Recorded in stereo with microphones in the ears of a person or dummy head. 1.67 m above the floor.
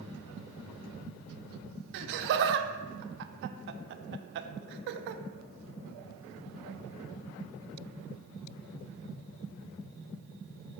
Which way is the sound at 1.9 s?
60° right (ahead or behind).